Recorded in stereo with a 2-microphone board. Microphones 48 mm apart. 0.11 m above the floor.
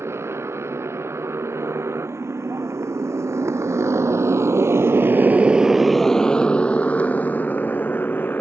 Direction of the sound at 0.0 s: 65° right (ahead or behind).